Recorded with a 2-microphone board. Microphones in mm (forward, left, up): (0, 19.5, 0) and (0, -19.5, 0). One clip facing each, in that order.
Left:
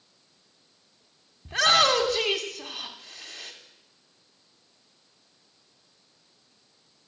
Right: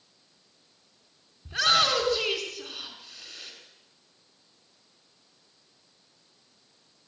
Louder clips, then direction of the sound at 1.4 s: Left 3 dB; 50° left (ahead or behind).